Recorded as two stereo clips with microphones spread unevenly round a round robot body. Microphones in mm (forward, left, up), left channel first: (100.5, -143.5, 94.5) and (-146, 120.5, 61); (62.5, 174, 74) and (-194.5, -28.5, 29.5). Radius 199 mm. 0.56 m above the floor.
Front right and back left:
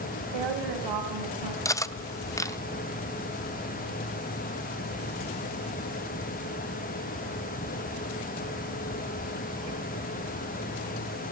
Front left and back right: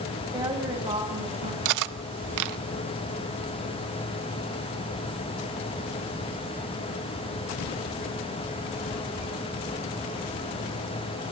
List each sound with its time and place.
0.3 s a woman speaking: 140° left, 3 m; by 1.6 s 145° left, 5 m
1.6 s cutlery clinking: 130° right, 0.9 m